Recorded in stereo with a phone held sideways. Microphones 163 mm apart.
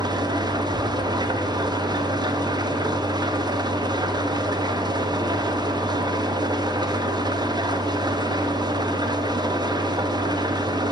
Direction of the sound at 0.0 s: 25° right (ahead or behind).